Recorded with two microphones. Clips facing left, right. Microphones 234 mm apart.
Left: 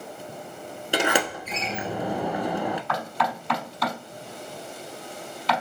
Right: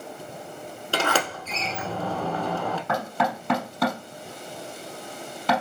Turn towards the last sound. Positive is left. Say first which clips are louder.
# right 3 dB
turn(degrees=-55)  # may be behind; listen again after turning